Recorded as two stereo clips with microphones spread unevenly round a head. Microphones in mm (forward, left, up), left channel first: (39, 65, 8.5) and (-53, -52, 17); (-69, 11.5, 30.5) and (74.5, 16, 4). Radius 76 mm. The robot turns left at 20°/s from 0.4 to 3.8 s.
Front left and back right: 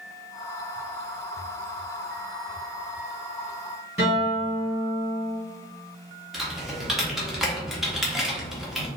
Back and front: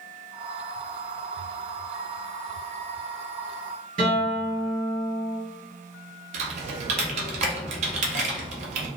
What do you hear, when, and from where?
4.0 s a guitar: 55° right, 1.6 m
6.3 s typing on a keyboard: 45° right, 0.5 m